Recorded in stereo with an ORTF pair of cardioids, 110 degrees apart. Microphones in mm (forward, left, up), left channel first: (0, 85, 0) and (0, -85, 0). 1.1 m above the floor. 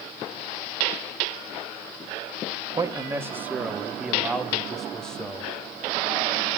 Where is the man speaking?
20° right, 2 m; by 5.5 s 5° left, 4 m.